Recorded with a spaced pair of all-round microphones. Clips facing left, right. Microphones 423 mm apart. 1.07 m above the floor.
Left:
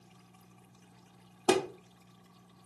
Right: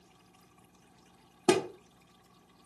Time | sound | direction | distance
1.5 | a thud | 40° right (ahead or behind) | 0.8 m